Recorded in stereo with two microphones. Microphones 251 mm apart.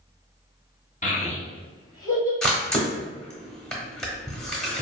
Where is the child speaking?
30° left (ahead or behind), 0.7 m; by 2.3 s 15° left (ahead or behind), 1.6 m.